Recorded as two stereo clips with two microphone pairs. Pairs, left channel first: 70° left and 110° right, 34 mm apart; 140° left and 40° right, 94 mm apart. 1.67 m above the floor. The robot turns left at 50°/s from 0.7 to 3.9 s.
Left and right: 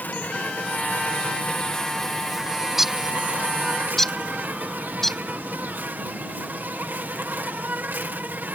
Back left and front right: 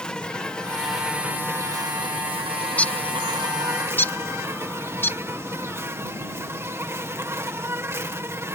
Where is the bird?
170° right; by 5.9 s 130° left.